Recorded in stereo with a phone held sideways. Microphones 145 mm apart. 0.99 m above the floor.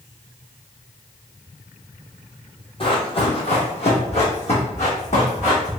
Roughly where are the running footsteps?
Left.